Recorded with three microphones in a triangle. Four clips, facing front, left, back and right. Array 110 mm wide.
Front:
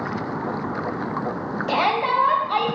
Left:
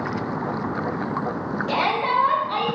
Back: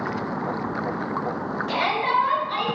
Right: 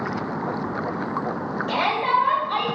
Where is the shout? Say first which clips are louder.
Even, front 3 dB; straight ahead, 2 m.